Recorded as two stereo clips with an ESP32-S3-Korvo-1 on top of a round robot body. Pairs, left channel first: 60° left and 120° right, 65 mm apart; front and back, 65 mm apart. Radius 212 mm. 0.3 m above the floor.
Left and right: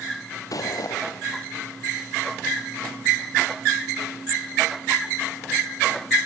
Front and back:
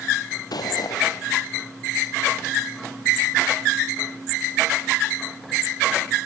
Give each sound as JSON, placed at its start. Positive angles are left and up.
{"t": 0.5, "sound": "footsteps", "azimuth_deg": 25, "distance_m": 0.6}